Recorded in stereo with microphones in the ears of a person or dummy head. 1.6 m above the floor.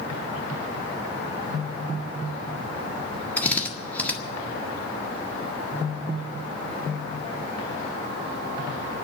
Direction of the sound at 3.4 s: 10° left (ahead or behind).